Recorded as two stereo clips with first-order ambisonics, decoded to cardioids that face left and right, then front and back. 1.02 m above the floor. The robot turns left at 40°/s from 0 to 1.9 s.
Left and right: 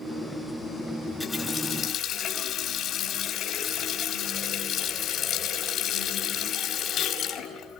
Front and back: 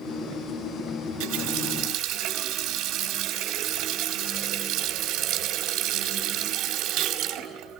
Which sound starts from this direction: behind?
A running tap, at 1.1 s.